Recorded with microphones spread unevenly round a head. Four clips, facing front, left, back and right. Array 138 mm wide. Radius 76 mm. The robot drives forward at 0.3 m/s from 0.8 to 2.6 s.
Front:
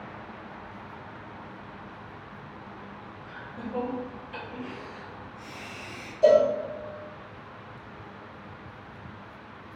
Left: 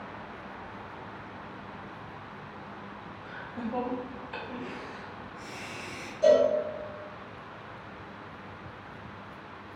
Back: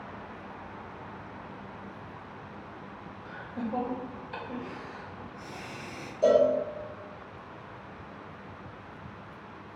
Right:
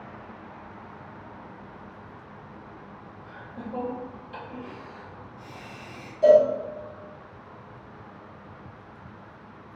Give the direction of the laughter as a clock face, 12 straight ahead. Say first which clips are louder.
Left 2 dB, back 4 dB; 7 o'clock.